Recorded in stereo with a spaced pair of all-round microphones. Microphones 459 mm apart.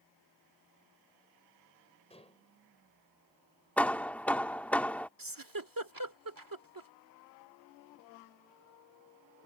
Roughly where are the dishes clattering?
Centre.